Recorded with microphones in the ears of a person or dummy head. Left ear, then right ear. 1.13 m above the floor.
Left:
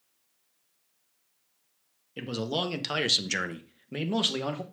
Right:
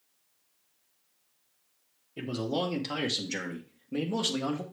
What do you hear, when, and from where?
2.2 s a man speaking: 30° left (ahead or behind), 1.0 m; by 4.6 s 35° left (ahead or behind), 1.1 m